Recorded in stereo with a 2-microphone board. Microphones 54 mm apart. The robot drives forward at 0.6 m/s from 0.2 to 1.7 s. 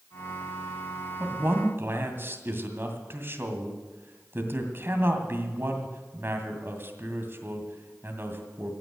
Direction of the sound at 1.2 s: 45° right (ahead or behind).